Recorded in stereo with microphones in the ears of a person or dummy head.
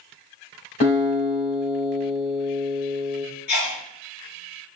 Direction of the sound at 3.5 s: 80° left.